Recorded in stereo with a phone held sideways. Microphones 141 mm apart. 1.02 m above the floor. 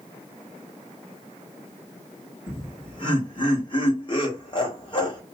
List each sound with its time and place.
2.5 s laughter: 35° left (ahead or behind), 1.2 m